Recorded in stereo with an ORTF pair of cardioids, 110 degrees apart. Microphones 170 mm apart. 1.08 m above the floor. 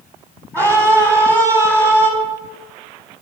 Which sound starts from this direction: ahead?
A scream, at 0.5 s.